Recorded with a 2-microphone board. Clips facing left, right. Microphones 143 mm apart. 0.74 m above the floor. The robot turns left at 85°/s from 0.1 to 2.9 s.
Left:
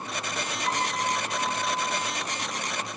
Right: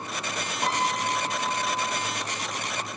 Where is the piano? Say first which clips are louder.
Right 2 dB; 85° right, 5 m; by 2.1 s 150° left, 5 m.